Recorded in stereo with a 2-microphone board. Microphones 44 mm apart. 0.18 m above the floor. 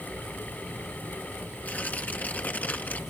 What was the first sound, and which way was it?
Tearing paper, 45° left (ahead or behind).